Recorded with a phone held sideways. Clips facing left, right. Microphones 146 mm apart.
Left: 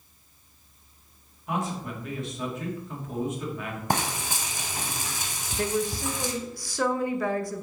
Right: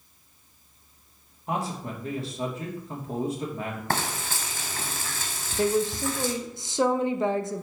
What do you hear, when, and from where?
1.5 s a man speaking: 35° right (ahead or behind), 1.8 m
3.9 s frying: 15° left (ahead or behind), 0.9 m
5.6 s a woman speaking: 25° right (ahead or behind), 0.6 m